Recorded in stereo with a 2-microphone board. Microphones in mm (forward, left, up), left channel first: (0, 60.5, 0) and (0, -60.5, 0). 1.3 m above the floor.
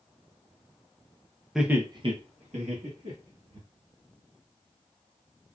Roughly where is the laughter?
Centre.